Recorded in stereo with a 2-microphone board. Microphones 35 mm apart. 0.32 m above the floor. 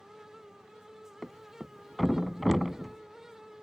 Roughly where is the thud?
Centre.